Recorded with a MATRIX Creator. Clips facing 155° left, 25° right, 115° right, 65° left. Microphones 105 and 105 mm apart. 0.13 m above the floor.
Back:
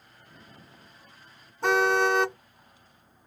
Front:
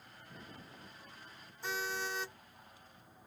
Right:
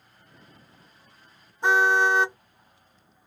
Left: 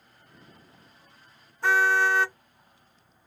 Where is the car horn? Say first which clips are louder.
Back 17 dB, right 2 dB; straight behind.